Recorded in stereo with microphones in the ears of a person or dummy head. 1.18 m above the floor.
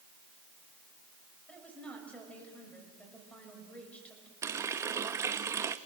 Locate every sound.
1.5 s a woman speaking: 10° left (ahead or behind), 6.5 m
4.4 s a running tap: 20° right (ahead or behind), 0.7 m